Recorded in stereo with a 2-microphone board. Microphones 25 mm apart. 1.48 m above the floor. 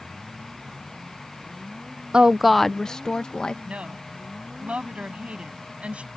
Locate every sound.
2.1 s a woman speaking: 40° right (ahead or behind); by 3.5 s 40° left (ahead or behind)
3.6 s a woman speaking: 55° right (ahead or behind)